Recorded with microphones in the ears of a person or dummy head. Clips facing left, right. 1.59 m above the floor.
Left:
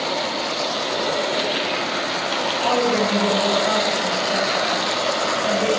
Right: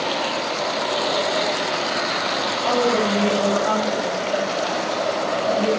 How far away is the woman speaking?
About 8 m.